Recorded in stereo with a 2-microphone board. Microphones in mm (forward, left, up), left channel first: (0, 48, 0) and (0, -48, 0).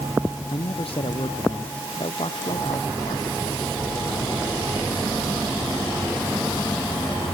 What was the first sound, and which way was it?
A man speaking, 75° left (ahead or behind).